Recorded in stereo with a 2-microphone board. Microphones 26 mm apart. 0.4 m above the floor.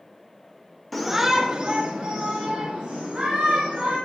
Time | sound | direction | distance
0.9 | a shout | 10° left (ahead or behind) | 1.0 m